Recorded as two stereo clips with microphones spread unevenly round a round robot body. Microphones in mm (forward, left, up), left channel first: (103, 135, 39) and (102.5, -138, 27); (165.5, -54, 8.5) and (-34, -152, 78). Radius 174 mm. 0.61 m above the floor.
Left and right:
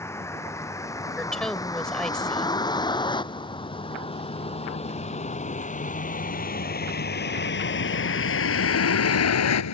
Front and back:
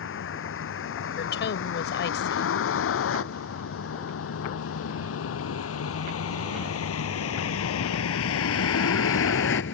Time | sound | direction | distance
0.0 | a vehicle | 10° left | ?
1.2 | a woman speaking | straight ahead | ?